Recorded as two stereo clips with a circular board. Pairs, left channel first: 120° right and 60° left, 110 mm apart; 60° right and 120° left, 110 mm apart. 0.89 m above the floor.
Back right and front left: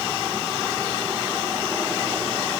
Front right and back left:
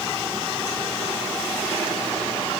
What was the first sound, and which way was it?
Only background noise.